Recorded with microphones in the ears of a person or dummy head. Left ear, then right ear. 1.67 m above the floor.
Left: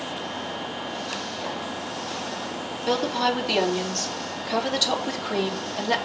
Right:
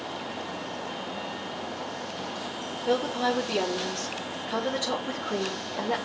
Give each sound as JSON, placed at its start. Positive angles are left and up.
{"t": 2.9, "sound": "a woman speaking", "side_deg": 45, "distance_m": 3.0}